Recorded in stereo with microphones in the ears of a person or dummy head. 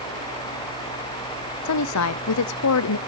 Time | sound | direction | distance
1.6 | a woman speaking | 85° left | 0.6 m